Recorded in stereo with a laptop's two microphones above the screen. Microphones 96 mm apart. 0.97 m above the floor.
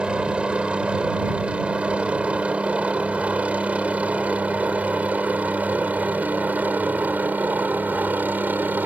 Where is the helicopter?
10° right (ahead or behind); by 8.9 s 20° right (ahead or behind).